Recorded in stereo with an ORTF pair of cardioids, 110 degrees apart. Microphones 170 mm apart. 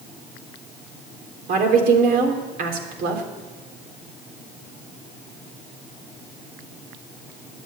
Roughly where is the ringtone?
No ringtone in this recording.